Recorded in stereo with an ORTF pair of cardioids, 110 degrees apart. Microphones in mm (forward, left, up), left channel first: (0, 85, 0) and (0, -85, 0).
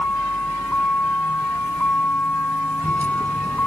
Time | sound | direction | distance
0.0 | a vehicle | 10° left | ?